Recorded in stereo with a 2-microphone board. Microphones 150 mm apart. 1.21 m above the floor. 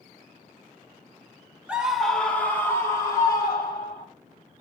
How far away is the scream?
About 0.8 m.